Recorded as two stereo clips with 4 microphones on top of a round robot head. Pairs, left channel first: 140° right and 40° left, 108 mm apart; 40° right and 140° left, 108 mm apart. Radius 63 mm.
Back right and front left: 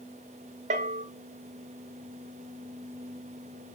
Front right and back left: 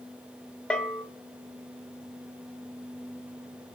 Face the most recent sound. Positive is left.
turn(degrees=40)